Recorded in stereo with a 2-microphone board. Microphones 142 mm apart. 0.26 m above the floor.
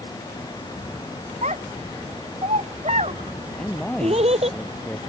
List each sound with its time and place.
1.4 s a child speaking: 50° right (ahead or behind); by 4.6 s 45° right (ahead or behind)
3.6 s a man speaking: 5° left (ahead or behind)